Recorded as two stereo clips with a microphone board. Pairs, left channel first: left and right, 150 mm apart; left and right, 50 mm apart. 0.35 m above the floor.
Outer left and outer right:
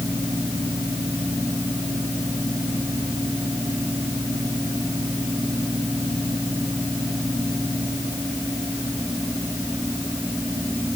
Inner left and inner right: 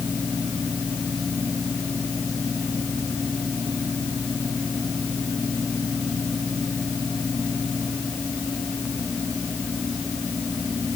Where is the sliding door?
No sliding door in this recording.